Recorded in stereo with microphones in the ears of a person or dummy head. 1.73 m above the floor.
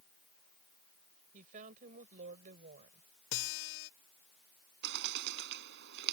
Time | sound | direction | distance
1.3 | a woman speaking | 40° right (ahead or behind) | ?
3.3 | a guitar | 75° left (ahead or behind) | ?
4.8 | a bird | 60° right (ahead or behind) | ?